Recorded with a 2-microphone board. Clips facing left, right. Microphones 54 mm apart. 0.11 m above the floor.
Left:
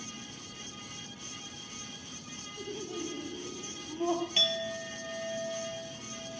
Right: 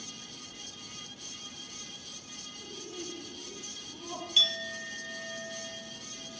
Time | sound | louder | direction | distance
2.6 | laughter | left 6 dB | 75° left (ahead or behind) | 5 m
4.4 | a clink | even | 40° left (ahead or behind) | 2 m